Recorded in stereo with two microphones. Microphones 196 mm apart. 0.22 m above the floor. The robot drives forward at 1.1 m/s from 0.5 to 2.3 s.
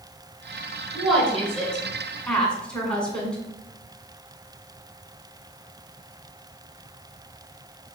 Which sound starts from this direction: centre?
A woman speaking, at 0.9 s.